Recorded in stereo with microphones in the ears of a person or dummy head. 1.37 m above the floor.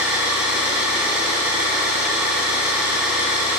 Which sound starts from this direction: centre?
An engine running, at 0.0 s.